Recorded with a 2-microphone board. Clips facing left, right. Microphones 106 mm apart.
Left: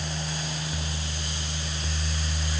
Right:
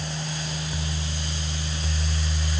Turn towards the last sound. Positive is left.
No sound to turn to.